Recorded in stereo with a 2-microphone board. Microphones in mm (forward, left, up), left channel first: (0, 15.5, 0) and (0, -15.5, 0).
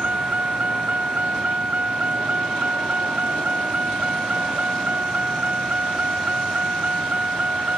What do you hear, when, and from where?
0.0 s a vehicle: 50° right (ahead or behind)